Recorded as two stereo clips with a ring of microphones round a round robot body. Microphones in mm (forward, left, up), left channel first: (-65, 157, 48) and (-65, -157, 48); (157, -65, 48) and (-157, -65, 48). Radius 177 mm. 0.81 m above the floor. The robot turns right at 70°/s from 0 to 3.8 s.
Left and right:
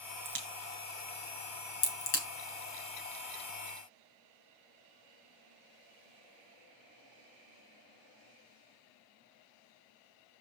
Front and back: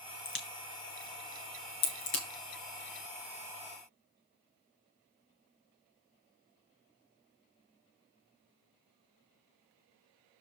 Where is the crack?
60° right, 3.5 m; by 2.2 s 80° left, 3.5 m.